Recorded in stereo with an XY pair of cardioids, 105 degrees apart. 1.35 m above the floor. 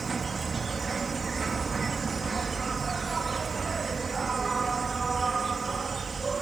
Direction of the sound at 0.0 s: 35° right.